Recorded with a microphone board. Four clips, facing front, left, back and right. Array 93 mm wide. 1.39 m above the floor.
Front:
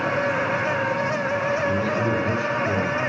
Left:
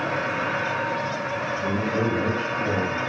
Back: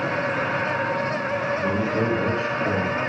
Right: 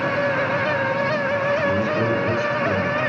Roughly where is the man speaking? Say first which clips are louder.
Right 4 dB, even; behind left.